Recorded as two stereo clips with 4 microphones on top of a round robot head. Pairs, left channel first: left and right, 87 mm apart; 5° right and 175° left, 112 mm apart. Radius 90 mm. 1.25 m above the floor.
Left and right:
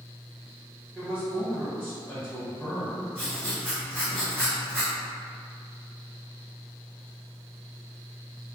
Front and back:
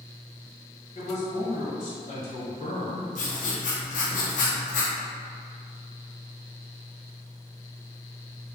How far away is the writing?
About 0.6 m.